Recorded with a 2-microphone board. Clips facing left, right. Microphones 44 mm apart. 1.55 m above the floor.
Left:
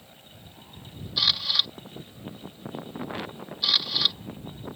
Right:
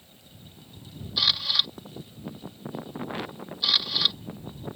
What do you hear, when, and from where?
1.2 s a camera shutter: centre (ahead or behind)